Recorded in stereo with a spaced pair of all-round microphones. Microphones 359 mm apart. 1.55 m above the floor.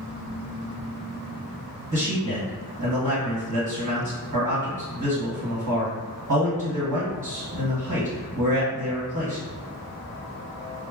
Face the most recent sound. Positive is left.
turn(degrees=-55)  # may be behind; listen again after turning